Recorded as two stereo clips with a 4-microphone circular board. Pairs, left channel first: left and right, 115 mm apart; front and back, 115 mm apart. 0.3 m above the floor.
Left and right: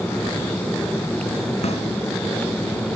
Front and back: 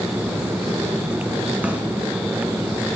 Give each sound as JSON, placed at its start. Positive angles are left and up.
{"t": 1.6, "sound": "a snare drum", "azimuth_deg": 100, "distance_m": 2.0}